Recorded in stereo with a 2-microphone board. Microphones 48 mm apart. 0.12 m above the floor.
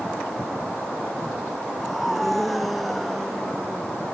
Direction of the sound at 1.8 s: Centre (ahead or behind).